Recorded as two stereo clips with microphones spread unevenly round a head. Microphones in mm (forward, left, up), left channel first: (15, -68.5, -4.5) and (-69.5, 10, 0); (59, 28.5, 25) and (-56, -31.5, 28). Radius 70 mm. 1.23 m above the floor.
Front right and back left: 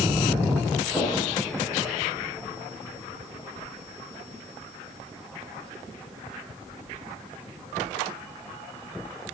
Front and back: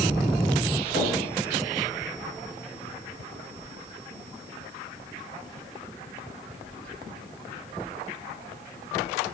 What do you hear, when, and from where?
0.9 s knocking: 35° left, 5.5 m